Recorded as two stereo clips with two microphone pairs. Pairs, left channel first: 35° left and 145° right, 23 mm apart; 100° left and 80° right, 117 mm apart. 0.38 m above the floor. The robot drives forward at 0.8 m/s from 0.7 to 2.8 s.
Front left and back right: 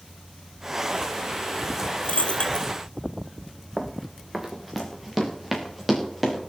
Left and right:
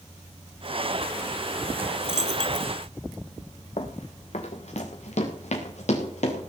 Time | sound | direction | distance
2.0 | a dropped coin | 70° left | 1.1 m
3.8 | running footsteps | 135° left | 2.0 m